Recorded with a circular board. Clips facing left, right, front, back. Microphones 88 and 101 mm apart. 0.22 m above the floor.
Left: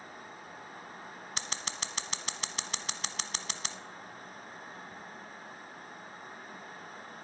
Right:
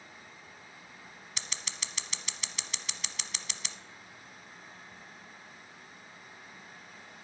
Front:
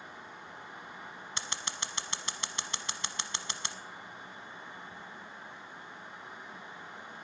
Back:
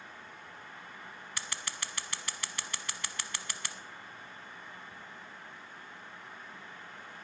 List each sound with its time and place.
1.4 s scissors: 60° left, 1.0 m